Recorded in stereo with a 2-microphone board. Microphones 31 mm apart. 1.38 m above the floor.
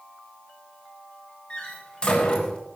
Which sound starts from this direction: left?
A door slam, at 1.5 s.